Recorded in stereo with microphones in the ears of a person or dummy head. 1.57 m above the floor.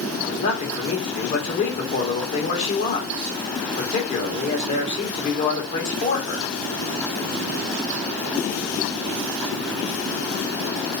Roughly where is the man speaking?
Left.